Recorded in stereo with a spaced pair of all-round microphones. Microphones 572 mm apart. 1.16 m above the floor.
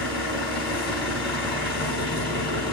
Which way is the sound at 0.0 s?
35° right (ahead or behind).